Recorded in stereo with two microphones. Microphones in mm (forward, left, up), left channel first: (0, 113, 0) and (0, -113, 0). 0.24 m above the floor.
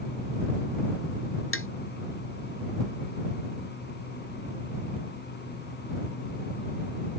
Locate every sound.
1.5 s tapping: 70° left (ahead or behind)